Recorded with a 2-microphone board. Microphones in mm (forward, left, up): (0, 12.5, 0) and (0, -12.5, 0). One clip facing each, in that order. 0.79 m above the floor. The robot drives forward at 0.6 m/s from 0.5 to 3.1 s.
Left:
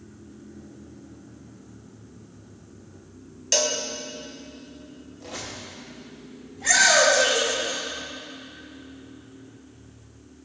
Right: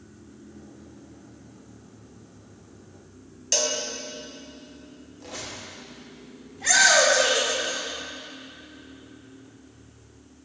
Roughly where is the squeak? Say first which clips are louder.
Left 1 dB; centre.